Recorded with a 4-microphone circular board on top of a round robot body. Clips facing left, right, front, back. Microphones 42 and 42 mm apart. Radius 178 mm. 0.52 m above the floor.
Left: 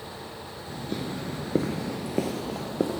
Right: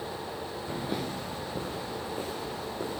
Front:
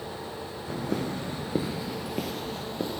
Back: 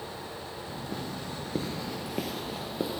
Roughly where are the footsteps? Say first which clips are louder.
Left 1 dB, front 8 dB; ahead right.